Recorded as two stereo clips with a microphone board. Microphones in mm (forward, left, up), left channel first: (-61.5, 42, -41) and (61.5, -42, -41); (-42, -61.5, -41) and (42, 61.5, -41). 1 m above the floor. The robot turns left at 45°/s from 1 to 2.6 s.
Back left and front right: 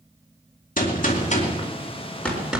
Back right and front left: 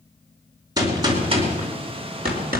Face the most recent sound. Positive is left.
turn(degrees=45)